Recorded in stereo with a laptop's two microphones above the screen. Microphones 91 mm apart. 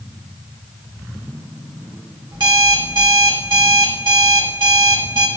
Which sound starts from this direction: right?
An alarm clock, at 2.3 s.